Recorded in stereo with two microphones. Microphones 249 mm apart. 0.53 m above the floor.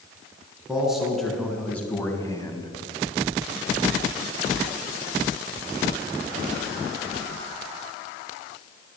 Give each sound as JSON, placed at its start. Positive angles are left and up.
{"t": 0.7, "sound": "a man speaking", "side_deg": -5, "distance_m": 5.5}